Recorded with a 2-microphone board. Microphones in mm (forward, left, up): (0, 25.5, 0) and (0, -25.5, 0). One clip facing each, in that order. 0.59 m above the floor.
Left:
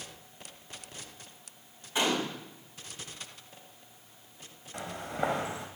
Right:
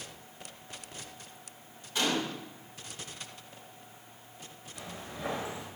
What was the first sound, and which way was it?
A gunshot, 25° left (ahead or behind).